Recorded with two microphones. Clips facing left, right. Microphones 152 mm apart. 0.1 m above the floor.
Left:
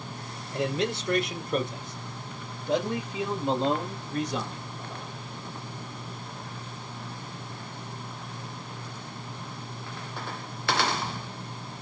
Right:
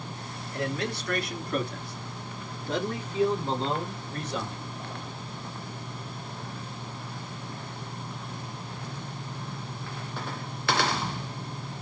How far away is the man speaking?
About 1.5 m.